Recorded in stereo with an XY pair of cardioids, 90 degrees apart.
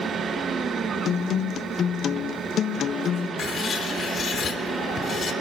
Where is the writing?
60° left, 3.5 m.